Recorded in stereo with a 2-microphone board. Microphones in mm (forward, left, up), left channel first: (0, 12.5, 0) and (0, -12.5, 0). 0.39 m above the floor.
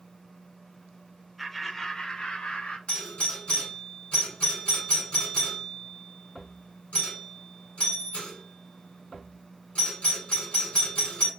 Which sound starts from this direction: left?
A doorbell, at 2.9 s.